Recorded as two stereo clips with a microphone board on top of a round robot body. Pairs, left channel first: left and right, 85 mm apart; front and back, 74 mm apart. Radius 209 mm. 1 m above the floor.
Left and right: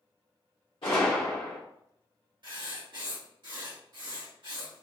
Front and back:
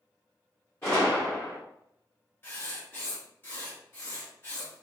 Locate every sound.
0.8 s a gunshot: 65° left, 0.7 m
2.4 s writing: 65° right, 1.6 m